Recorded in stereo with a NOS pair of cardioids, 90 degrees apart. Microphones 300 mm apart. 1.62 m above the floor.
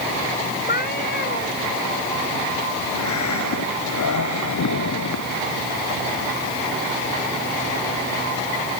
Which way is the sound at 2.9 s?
60° left.